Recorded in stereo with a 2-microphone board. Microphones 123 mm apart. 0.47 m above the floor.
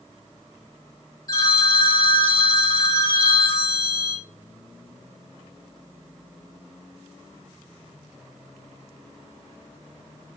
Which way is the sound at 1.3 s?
30° left (ahead or behind).